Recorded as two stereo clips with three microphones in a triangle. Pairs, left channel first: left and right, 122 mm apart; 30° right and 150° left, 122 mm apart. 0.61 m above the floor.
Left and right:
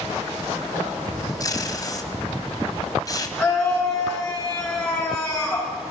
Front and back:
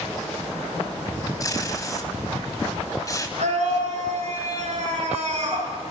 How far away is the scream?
About 8 m.